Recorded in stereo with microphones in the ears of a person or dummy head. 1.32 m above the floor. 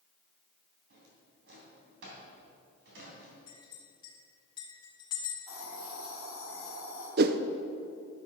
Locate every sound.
0.9 s a drawer: 75° right (ahead or behind), 3 m
3.5 s a clink: 20° left (ahead or behind), 2 m
5.5 s a hiss: 40° right (ahead or behind), 3.5 m
7.2 s a whoosh: 55° right (ahead or behind), 0.6 m